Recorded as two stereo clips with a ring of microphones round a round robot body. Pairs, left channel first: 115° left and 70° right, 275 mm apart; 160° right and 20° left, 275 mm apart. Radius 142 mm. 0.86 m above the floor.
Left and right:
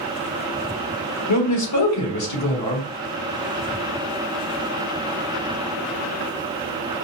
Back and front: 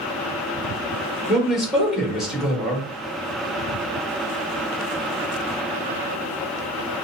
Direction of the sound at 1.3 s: 110° left.